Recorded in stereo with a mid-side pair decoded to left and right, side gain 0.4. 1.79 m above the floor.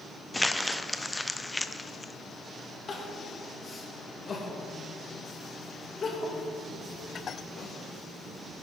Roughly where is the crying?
Ahead left.